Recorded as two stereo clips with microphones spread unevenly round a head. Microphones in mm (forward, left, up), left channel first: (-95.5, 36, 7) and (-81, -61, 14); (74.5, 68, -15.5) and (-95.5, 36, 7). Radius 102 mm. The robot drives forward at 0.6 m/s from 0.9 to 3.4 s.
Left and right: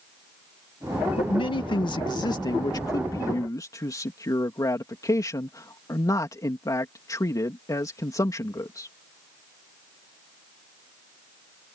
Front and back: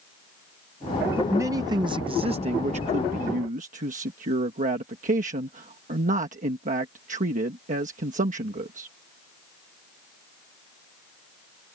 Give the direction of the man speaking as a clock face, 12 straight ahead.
8 o'clock.